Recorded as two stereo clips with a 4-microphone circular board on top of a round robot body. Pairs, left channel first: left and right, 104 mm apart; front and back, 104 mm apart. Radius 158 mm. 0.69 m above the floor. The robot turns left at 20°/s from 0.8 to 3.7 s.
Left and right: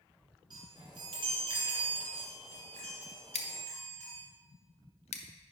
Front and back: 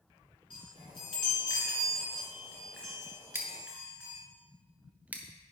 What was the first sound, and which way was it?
A chime, 40° right.